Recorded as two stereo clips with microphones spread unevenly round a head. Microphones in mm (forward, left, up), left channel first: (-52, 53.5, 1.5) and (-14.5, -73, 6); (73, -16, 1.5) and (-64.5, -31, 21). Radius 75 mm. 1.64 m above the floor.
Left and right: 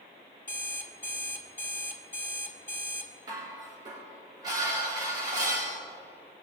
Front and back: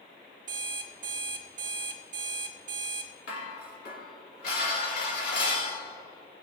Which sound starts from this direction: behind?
An alarm clock, at 0.5 s.